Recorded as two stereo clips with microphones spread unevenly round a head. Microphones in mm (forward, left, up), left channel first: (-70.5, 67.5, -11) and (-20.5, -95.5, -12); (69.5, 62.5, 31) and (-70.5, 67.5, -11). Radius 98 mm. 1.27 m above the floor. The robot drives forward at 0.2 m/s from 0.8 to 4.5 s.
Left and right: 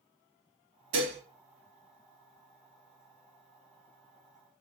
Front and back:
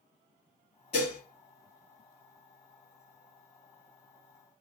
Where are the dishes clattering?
55° right, 1.5 m.